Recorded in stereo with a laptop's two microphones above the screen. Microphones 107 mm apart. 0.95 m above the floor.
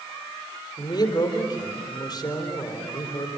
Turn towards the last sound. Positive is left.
turn(degrees=40)  # may be behind; listen again after turning